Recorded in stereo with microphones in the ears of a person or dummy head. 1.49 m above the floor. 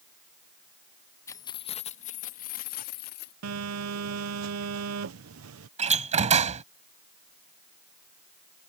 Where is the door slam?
30° right (ahead or behind).